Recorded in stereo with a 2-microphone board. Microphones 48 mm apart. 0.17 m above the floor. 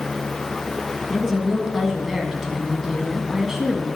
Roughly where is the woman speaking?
Centre.